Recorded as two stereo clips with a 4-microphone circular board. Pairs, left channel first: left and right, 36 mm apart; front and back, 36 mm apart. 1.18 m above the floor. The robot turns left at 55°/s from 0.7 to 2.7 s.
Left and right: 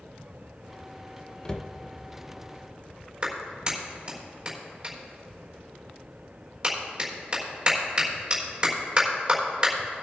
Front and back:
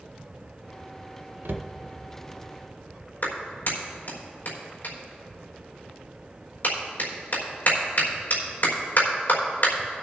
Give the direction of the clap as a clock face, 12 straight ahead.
1 o'clock.